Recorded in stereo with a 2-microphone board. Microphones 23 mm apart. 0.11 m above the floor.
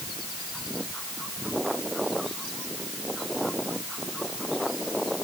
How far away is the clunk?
I don't hear a clunk.